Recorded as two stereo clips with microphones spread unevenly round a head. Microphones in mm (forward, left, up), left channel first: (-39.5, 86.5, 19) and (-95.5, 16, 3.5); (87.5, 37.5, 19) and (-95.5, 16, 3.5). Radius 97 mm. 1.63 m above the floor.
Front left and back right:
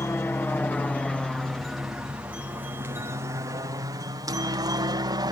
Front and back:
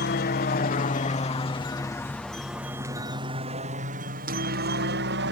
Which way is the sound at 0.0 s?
20° right.